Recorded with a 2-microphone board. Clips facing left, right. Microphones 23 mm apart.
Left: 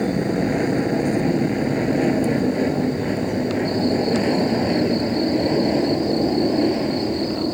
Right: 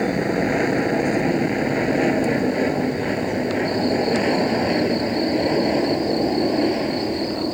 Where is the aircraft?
25° right (ahead or behind); by 7.5 s 10° right (ahead or behind).